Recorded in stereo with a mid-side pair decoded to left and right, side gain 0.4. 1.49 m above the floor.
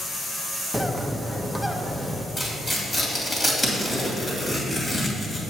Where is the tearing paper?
25° left, 2.5 m.